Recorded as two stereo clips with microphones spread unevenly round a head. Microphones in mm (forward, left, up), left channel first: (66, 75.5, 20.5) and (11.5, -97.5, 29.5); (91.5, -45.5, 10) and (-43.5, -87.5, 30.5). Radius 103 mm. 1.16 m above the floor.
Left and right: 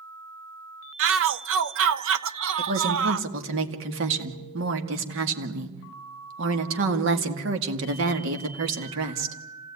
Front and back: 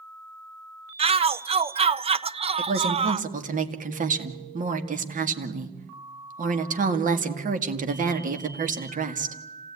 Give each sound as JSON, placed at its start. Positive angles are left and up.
{"t": 1.0, "sound": "a shout", "azimuth_deg": -110, "distance_m": 1.1}
{"t": 2.6, "sound": "a woman speaking", "azimuth_deg": -135, "distance_m": 2.0}